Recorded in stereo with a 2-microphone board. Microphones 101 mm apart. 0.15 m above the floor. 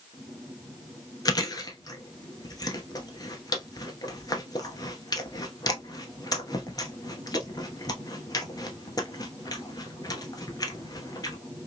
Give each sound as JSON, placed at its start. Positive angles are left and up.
{"t": 1.2, "sound": "chewing", "side_deg": 40, "distance_m": 0.7}